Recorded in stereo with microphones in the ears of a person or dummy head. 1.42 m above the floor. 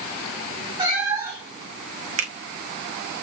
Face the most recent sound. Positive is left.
turn(degrees=-40)  # may be behind; listen again after turning